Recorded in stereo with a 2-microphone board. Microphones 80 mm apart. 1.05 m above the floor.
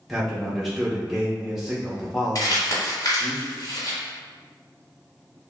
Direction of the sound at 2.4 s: 50° left (ahead or behind).